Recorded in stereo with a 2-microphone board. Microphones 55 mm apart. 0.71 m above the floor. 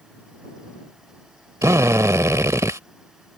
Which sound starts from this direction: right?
A drill, at 1.6 s.